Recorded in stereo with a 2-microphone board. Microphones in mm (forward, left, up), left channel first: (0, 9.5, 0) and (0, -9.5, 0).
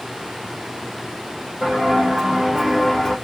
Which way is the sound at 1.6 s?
50° right (ahead or behind).